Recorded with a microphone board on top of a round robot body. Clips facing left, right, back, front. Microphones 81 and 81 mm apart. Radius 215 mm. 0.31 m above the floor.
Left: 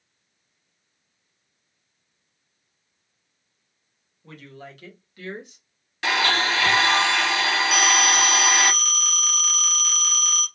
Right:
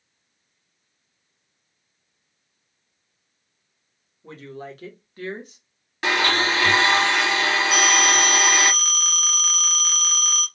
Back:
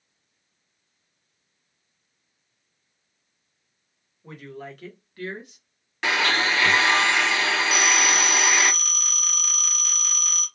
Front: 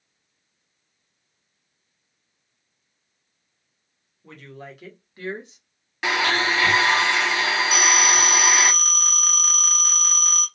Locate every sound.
4.2 s a woman speaking: 115° right, 1.4 m; by 5.6 s 50° right, 1.8 m
6.0 s a blender: 75° right, 1.8 m
7.7 s a phone ringing: 40° right, 1.6 m